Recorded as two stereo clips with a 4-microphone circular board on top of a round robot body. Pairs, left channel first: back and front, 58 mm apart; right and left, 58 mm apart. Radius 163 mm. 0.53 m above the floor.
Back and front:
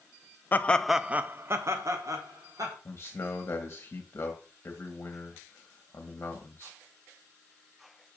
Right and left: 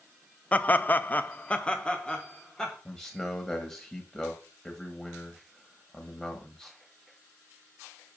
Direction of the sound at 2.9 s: 160° right.